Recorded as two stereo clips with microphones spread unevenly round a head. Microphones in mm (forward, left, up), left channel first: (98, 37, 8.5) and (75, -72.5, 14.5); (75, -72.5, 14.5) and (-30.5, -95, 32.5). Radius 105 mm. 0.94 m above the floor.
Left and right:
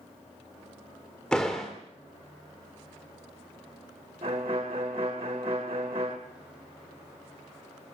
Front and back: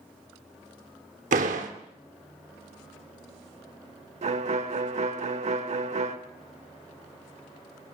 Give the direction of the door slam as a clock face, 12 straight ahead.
7 o'clock.